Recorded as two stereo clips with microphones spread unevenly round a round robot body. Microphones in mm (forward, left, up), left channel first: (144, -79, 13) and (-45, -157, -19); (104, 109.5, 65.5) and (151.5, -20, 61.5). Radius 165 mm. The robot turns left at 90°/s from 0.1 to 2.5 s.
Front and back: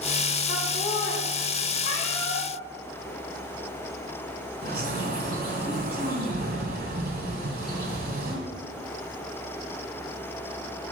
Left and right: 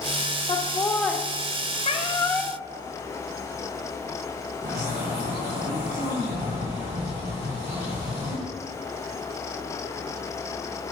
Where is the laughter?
85° left, 1.6 m; by 1.2 s 20° left, 1.6 m.